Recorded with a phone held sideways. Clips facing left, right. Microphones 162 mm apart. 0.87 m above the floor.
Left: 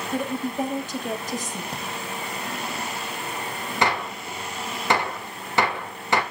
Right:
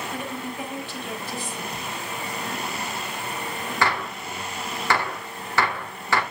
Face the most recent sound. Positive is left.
turn(degrees=20)  # may be behind; listen again after turning